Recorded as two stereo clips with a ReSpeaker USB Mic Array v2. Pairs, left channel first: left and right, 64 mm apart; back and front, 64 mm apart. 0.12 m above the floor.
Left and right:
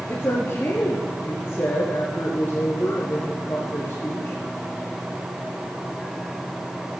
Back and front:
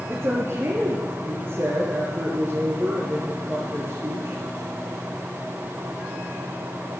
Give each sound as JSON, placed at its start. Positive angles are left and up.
{"t": 0.1, "sound": "a woman speaking", "azimuth_deg": 40, "distance_m": 2.0}